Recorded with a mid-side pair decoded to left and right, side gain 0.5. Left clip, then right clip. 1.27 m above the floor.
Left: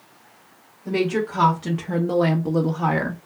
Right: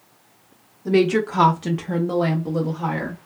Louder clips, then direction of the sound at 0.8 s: Right 4 dB; 50° right.